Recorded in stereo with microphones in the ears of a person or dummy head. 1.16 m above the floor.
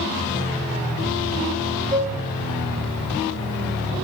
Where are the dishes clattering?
20° right (ahead or behind), 2 m.